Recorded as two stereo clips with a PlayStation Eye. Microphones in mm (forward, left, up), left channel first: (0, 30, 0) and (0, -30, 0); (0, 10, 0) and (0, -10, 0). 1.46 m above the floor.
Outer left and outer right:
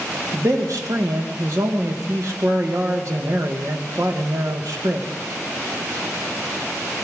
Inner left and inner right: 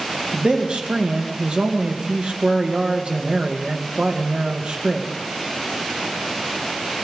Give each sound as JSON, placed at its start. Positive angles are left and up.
{"t": 0.3, "sound": "a man speaking", "side_deg": -65, "distance_m": 2.0}